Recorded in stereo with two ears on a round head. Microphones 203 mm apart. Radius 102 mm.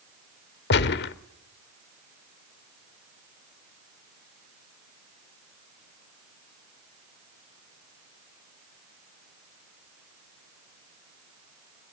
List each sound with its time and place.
0.7 s a gunshot: 50° left (ahead or behind), 0.6 m